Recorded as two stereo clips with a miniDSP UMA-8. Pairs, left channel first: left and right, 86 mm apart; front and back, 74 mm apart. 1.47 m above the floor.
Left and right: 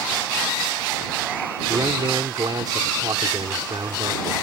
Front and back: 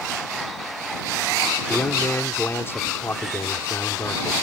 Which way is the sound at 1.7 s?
55° right.